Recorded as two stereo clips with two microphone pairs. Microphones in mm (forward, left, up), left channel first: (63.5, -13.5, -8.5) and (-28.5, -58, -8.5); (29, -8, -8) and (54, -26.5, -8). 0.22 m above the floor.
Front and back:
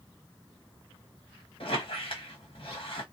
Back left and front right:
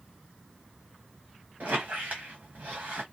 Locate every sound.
1.6 s a squeak: 5° right, 1.1 m